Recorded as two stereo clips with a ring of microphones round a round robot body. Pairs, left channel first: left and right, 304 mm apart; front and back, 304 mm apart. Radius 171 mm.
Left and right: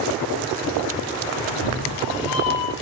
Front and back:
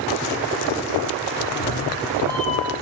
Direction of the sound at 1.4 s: 65° left.